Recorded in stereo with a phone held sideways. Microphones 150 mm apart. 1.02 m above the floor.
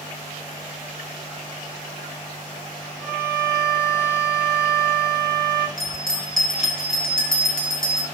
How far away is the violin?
About 0.7 m.